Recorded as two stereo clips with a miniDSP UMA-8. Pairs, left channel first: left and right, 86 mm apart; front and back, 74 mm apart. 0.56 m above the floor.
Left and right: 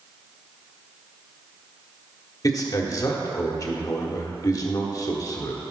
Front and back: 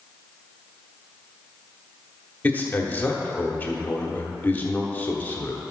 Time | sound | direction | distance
2.4 | a man speaking | 60° left | 1.2 m